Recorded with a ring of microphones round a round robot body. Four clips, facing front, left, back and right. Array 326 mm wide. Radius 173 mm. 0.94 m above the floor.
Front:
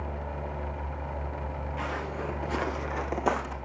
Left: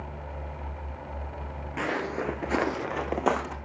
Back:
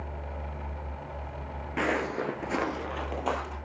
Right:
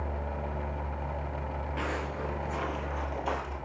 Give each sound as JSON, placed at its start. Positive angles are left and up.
{"t": 1.8, "sound": "footsteps", "azimuth_deg": 165, "distance_m": 1.3}